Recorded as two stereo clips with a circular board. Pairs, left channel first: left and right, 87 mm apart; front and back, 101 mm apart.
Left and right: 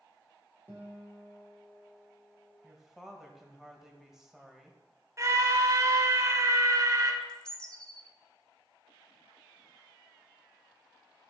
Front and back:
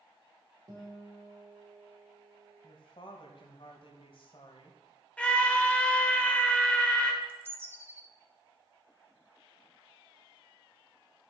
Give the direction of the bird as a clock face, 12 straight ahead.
7 o'clock.